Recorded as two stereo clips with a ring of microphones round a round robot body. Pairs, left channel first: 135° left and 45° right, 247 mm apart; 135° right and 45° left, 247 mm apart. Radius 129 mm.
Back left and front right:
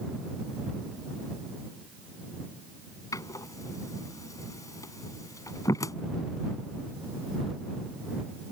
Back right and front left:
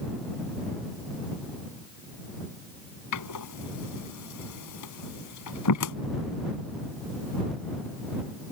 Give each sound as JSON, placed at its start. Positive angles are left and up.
{"t": 3.1, "sound": "a door slam", "azimuth_deg": -145}